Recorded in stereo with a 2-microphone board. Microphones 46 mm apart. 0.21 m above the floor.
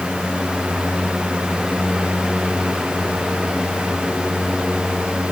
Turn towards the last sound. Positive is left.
No sound to turn to.